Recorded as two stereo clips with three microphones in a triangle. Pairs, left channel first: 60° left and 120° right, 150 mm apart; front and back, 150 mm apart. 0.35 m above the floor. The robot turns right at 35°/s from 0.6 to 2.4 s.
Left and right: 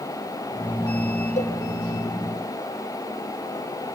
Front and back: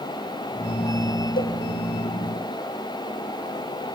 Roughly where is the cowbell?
Ahead.